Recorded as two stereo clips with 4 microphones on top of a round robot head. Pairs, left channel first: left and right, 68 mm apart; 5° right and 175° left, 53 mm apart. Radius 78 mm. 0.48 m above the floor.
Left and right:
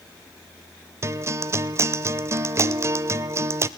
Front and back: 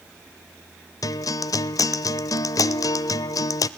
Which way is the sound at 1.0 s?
35° right.